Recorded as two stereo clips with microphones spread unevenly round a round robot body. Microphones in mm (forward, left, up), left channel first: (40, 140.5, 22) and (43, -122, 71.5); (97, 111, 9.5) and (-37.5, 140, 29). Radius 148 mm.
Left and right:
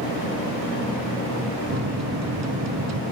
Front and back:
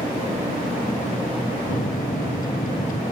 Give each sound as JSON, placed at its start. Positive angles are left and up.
{"t": 1.7, "sound": "a microwave", "azimuth_deg": -60}